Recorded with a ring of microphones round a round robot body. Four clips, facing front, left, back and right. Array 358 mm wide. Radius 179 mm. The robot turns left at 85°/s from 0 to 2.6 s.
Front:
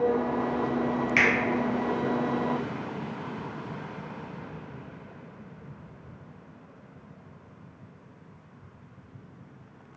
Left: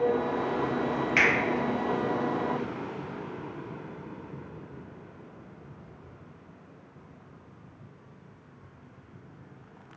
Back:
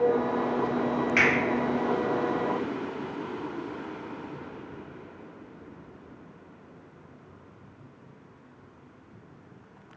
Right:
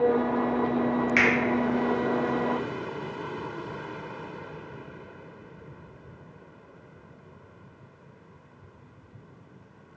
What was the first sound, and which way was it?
A finger snap, 40° right.